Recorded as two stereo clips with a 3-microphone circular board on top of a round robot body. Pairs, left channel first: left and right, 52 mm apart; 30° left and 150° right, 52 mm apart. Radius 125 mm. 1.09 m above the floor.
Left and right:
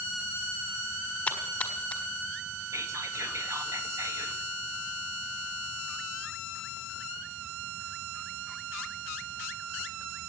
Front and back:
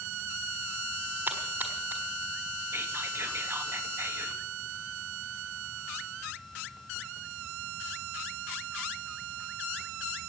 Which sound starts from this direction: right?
Whispering, at 2.7 s.